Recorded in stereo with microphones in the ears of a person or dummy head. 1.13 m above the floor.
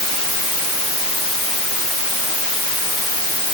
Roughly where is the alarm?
No alarm in this recording.